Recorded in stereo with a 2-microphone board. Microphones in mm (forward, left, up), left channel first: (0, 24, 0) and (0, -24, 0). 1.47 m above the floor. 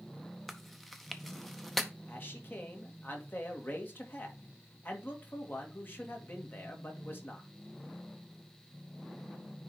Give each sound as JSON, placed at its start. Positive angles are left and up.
{"t": 0.5, "sound": "chewing", "side_deg": 5, "distance_m": 0.8}
{"t": 2.1, "sound": "a man speaking", "side_deg": 45, "distance_m": 1.9}